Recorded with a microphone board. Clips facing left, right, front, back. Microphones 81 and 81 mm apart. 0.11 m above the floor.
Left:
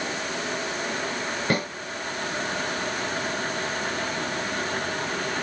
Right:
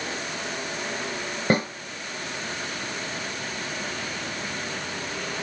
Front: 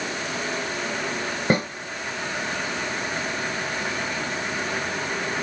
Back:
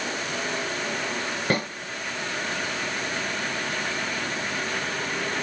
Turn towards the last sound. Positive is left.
turn(degrees=-50)